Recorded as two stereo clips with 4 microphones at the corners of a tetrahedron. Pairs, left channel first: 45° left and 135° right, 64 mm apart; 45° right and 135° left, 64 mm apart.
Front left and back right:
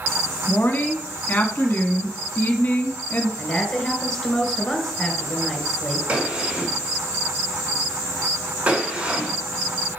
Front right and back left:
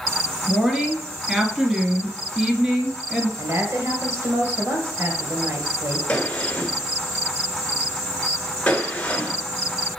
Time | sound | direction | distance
0.5 | a woman speaking | 55° left | 1.3 m
3.4 | a woman speaking | 125° left | 2 m
6.1 | a gunshot | 90° right | 1.3 m